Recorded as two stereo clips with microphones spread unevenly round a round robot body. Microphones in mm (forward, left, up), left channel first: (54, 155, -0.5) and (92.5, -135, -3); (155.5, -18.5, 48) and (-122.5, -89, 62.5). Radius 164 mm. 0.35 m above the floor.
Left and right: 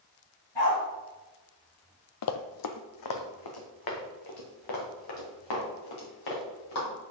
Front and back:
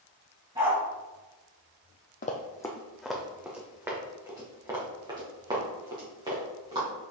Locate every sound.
0.6 s a dog barking: 115° left, 3 m
2.2 s running footsteps: 80° left, 0.6 m; by 6.9 s 120° left, 4 m